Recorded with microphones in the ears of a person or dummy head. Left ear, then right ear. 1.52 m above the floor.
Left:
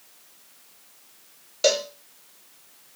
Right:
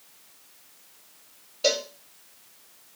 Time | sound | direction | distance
1.6 | a cowbell | 50° left (ahead or behind) | 1.1 m